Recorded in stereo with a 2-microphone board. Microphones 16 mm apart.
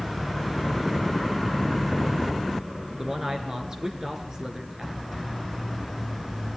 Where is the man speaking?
40° right (ahead or behind), 3 m.